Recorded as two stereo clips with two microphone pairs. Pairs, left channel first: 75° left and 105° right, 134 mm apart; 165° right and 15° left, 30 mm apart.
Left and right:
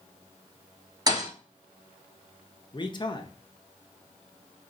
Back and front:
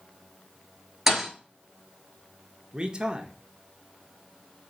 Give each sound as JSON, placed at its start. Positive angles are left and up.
{"t": 1.1, "sound": "a thud", "azimuth_deg": -60, "distance_m": 1.1}
{"t": 2.7, "sound": "a man speaking", "azimuth_deg": 50, "distance_m": 0.6}